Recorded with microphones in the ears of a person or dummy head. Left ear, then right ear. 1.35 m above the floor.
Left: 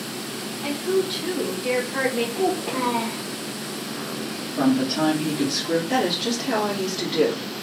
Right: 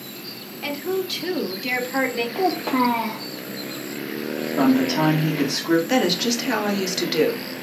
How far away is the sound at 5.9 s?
About 1.2 m.